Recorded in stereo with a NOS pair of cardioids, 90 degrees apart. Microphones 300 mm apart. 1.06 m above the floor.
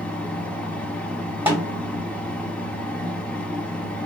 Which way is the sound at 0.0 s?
5° left.